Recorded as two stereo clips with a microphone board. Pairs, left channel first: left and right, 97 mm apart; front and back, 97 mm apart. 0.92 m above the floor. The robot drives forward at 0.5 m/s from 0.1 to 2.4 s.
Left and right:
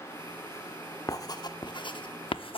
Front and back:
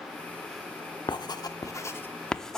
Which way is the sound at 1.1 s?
40° left.